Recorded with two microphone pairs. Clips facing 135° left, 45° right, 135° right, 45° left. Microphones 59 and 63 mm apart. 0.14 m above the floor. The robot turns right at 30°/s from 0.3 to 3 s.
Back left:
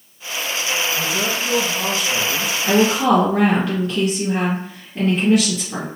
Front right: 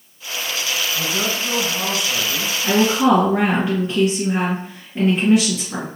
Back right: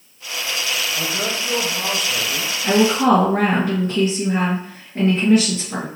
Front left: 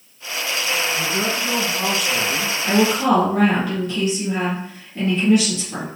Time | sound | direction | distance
0.9 | a man speaking | 20° right | 1.4 m
2.6 | a woman speaking | 120° right | 2 m